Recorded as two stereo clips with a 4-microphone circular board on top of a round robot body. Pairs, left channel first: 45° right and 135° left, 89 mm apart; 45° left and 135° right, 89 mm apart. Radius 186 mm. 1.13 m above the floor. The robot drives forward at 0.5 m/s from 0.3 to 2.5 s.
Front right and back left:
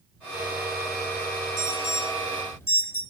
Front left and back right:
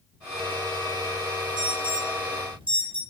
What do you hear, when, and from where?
1.6 s an alarm: 105° right, 4.5 m; by 3.0 s 110° right, 5 m